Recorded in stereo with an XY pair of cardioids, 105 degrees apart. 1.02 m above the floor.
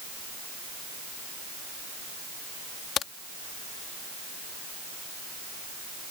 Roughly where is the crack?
Ahead left.